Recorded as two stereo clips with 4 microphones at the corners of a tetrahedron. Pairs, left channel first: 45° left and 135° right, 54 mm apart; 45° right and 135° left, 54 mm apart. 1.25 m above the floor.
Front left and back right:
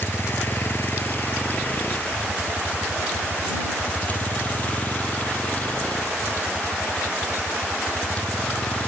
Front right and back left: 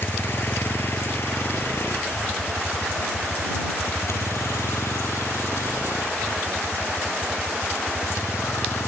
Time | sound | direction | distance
0.0 | a vehicle | straight ahead | ?